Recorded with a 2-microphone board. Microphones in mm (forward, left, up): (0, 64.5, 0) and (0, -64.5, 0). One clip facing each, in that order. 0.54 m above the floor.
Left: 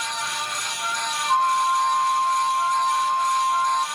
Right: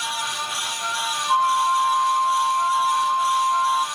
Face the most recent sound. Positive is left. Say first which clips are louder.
# right 1 dB
turn(degrees=-5)  # may be behind; listen again after turning